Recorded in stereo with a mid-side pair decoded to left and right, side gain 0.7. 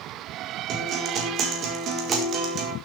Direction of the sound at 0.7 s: 45° right.